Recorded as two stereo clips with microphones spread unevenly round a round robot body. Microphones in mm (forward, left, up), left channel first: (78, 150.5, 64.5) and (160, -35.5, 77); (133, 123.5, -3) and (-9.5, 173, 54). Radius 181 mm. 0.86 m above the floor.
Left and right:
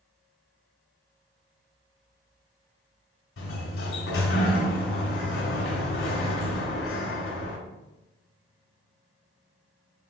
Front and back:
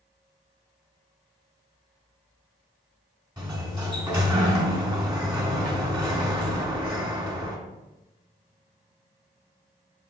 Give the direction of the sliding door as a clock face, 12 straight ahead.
9 o'clock.